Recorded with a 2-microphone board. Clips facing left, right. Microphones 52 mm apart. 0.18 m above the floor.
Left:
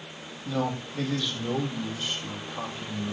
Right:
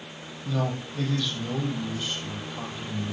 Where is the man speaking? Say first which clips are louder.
Even; 10° left (ahead or behind), 6 m; by 3.1 s 15° left (ahead or behind), 7 m.